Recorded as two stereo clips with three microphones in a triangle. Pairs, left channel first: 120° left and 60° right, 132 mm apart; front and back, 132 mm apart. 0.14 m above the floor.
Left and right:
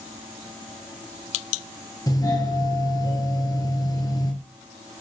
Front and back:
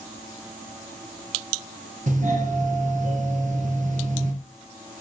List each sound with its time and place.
2.1 s a doorbell: straight behind, 3 m